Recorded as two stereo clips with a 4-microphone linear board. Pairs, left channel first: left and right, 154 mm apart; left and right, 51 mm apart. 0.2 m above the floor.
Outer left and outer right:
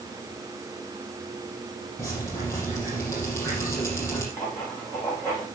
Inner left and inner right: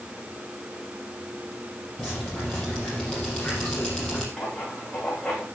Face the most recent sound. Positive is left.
turn(degrees=20)  # may be behind; listen again after turning